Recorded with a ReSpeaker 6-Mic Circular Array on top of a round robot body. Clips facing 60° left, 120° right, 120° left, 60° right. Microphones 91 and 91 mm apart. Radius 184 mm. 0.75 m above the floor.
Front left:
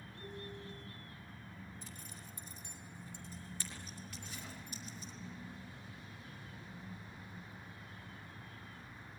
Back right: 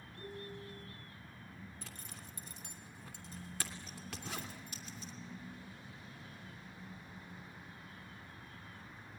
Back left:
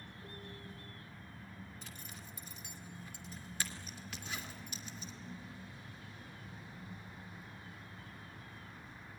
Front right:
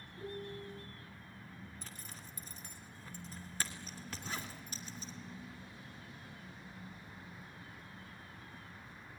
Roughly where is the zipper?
Behind right.